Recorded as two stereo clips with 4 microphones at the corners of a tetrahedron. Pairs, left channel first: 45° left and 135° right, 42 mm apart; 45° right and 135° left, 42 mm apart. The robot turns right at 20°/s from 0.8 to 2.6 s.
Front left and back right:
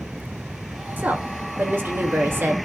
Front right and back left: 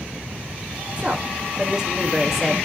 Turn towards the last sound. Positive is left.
turn(degrees=-135)